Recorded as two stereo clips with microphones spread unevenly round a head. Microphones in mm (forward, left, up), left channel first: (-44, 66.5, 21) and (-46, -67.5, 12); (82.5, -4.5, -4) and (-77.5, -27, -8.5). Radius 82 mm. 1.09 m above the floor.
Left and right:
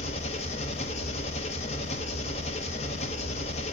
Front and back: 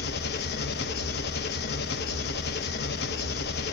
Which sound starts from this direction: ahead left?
An engine running, at 0.0 s.